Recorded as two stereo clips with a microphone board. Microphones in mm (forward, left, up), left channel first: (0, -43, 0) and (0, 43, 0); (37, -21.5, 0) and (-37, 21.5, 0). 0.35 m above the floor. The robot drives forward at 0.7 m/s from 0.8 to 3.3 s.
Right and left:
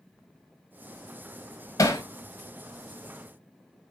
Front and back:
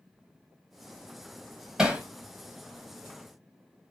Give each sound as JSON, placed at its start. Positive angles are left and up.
{"t": 1.8, "sound": "hammering", "azimuth_deg": -130, "distance_m": 1.0}